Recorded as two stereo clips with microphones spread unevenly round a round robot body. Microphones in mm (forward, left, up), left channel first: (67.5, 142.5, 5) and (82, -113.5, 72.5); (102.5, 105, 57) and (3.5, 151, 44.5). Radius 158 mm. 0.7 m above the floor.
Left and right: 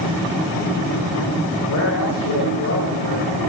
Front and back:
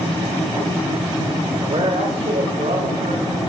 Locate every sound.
1.6 s a man speaking: 120° left, 2 m; by 3.4 s 150° left, 3.5 m